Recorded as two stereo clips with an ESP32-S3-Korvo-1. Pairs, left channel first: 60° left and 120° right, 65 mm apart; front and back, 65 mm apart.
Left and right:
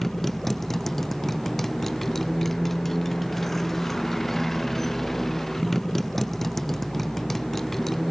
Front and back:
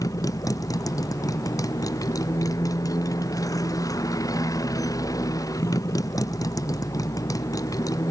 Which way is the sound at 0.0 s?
25° right.